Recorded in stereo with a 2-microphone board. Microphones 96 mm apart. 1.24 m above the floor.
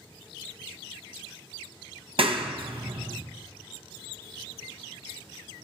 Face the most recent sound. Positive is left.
turn(degrees=-65)  # may be behind; listen again after turning